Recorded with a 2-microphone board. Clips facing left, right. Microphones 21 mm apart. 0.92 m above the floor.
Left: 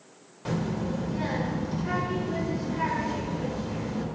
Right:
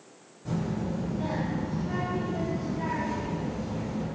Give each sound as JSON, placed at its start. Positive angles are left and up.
{"t": 0.5, "sound": "a child speaking", "side_deg": 90, "distance_m": 2.0}